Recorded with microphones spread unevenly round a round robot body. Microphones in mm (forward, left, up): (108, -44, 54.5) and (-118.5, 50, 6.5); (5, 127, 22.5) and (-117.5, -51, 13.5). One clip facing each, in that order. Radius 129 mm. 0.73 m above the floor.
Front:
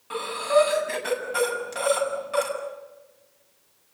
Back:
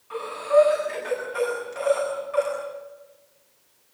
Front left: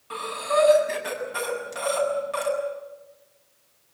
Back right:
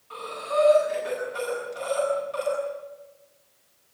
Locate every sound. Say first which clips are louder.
0.1 s breathing: back 2 dB, front left 3 dB; 15° left, 7.5 m